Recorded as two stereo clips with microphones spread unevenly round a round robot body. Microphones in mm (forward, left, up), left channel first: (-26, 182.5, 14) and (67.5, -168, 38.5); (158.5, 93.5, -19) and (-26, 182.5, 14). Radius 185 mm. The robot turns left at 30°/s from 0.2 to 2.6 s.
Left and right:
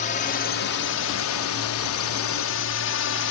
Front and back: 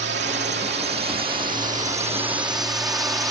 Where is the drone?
160° left; by 3.3 s 75° left.